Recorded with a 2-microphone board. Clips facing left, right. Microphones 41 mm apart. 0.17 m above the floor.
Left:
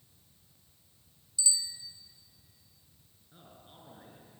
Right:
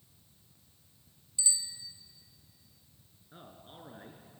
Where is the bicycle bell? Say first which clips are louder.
Left 2 dB; 20° right (ahead or behind), 2.5 m.